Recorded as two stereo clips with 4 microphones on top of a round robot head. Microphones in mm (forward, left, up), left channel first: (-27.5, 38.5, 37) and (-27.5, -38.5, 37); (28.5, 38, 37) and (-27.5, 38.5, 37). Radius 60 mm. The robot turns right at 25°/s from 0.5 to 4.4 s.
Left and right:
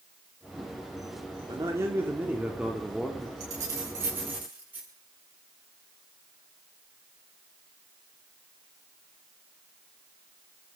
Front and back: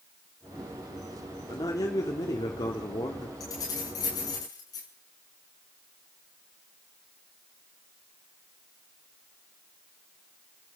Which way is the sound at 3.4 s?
40° right.